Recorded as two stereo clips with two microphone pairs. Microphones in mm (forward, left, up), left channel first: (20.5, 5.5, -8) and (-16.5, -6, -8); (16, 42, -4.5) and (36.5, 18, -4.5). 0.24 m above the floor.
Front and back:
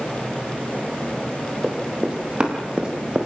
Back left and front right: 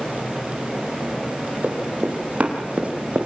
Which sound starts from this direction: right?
Running footsteps, at 1.6 s.